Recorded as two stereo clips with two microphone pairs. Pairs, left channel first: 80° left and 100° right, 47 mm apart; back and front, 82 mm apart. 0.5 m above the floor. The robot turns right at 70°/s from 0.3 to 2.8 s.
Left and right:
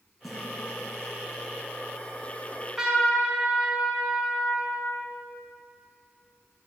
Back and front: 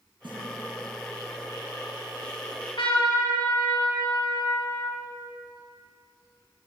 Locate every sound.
0.2 s a snare drum: 10° right, 5.5 m; by 0.4 s 5° right, 5.5 m
2.5 s a trumpet: 155° left, 5.5 m; by 5.0 s 175° left, 5.5 m